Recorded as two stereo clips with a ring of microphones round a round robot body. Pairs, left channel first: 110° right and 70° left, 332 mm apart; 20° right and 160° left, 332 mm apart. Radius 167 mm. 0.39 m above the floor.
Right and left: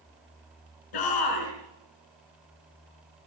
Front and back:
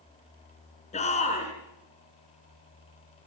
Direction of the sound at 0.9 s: 95° right.